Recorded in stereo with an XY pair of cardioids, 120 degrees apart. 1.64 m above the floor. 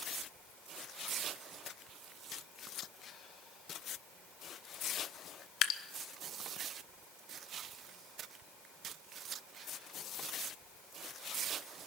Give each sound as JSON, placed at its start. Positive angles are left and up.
{"t": 5.6, "sound": "dripping", "azimuth_deg": 70, "distance_m": 1.0}